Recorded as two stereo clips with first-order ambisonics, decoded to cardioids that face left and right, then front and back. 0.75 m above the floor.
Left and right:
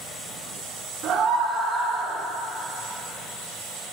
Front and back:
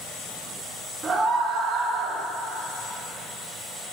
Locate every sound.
1.0 s a scream: 125° right, 1.2 m; by 2.2 s 155° left, 1.5 m